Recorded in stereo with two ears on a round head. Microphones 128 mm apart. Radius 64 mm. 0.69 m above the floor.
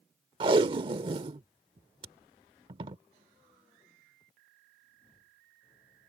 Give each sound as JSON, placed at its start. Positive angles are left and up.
{"t": 0.4, "sound": "tape being pulled", "side_deg": -35}